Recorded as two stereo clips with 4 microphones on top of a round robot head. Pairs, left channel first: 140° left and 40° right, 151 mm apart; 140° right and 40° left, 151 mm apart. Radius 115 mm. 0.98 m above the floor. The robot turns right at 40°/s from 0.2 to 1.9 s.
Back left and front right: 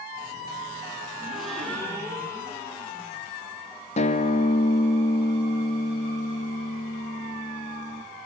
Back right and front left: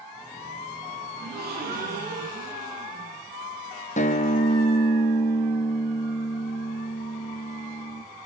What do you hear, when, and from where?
1.2 s a gasp: 40° left, 10 m; by 3.2 s 70° left, 10 m
4.0 s a guitar: 175° right, 1.9 m